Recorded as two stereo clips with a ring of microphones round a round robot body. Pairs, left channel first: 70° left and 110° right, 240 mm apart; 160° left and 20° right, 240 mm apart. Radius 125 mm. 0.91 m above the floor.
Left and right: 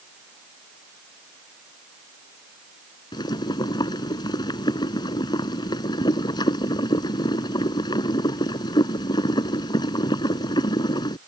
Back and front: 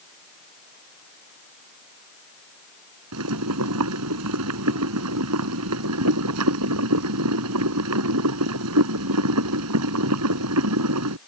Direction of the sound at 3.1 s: 5° right.